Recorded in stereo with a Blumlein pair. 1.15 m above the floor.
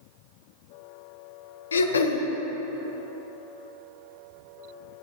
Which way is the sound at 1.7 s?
70° left.